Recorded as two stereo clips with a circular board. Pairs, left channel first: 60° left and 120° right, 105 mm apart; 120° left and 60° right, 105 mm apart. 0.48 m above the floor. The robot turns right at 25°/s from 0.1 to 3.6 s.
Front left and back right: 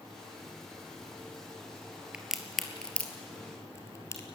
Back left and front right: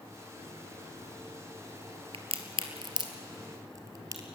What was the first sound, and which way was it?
A crack, 40° right.